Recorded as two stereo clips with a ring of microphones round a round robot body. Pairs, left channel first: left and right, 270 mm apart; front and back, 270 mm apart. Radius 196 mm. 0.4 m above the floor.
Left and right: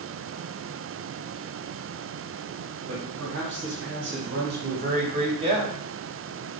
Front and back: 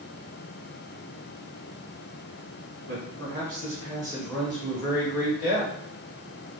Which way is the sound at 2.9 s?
135° right.